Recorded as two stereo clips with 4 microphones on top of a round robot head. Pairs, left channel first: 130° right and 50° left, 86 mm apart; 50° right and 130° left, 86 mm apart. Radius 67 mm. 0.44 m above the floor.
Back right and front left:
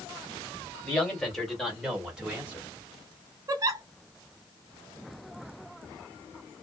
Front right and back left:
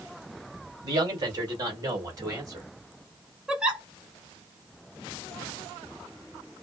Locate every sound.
0.8 s a man speaking: 160° left, 2 m; by 2.7 s 110° left, 1.4 m
3.5 s a giggle: 55° left, 0.8 m